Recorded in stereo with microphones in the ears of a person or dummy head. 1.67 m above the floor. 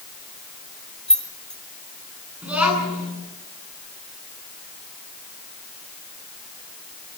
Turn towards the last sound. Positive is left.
turn(degrees=-5)  # may be behind; listen again after turning